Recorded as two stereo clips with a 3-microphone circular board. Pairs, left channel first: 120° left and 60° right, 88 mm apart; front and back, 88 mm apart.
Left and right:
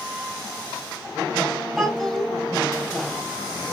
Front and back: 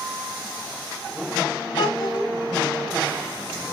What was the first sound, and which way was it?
A child speaking, 35° left.